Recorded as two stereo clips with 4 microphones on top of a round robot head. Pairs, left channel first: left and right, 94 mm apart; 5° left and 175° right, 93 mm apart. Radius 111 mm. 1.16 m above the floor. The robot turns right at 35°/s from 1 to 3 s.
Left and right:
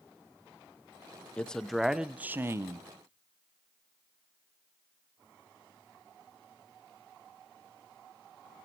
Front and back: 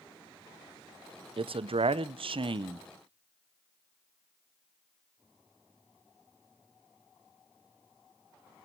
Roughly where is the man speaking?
Behind.